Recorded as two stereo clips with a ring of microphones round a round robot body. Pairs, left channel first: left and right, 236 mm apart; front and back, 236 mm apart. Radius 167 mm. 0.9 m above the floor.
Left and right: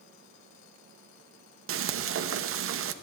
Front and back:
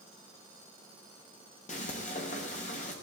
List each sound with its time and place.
1.7 s frying: 65° right, 0.7 m